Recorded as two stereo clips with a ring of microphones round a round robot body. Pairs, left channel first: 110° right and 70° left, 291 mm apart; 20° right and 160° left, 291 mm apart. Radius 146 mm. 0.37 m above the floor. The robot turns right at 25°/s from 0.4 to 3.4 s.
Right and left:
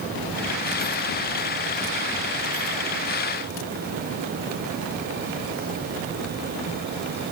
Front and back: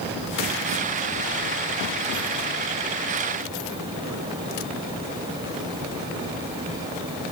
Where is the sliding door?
No sliding door in this recording.